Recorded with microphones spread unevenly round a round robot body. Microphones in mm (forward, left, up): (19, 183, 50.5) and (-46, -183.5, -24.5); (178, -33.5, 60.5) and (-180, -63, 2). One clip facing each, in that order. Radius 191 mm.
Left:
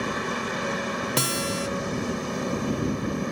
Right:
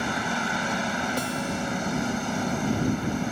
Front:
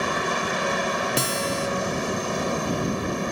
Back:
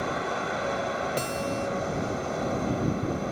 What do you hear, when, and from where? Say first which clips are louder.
0.0 s a helicopter: even, front 3 dB; 20° right
1.2 s a guitar: left 1 dB, front 3 dB; 55° left